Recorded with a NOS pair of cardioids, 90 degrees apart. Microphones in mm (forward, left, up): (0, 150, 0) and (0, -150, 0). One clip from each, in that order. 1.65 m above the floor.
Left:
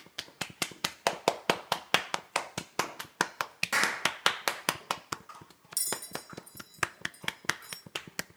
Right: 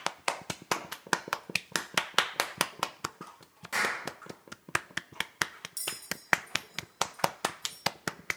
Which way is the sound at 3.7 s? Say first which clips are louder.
Left 1 dB; 50° left.